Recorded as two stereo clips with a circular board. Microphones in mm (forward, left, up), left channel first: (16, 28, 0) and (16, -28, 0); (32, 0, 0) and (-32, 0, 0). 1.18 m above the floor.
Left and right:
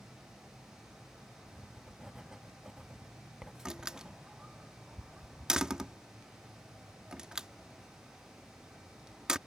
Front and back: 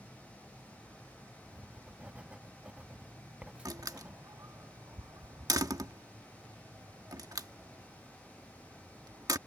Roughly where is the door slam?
Behind.